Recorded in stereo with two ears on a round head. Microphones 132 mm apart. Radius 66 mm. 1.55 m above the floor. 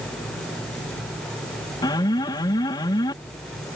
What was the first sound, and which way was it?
An alarm, 25° left (ahead or behind).